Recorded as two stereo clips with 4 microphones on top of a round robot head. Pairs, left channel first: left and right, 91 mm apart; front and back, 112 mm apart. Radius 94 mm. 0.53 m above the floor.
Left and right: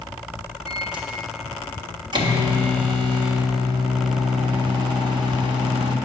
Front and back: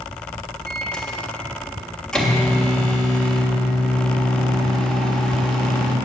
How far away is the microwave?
About 1.5 m.